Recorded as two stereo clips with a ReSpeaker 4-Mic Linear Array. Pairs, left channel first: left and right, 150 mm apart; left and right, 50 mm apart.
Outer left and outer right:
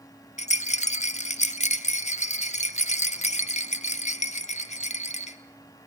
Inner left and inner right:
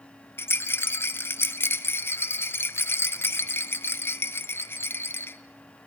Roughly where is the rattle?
Left.